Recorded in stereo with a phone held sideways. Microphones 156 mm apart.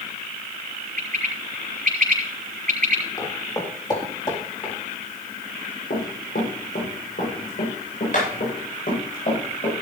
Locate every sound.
1.0 s a bird: 65° right (ahead or behind), 4.5 m
3.2 s footsteps: 20° left (ahead or behind), 3.5 m; by 4.7 s 30° left (ahead or behind), 5 m
5.9 s running footsteps: 70° left (ahead or behind), 7 m; by 9.7 s 55° left (ahead or behind), 10.5 m